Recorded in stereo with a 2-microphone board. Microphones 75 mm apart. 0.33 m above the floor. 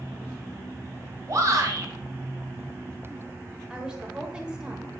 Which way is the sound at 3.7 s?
10° right (ahead or behind).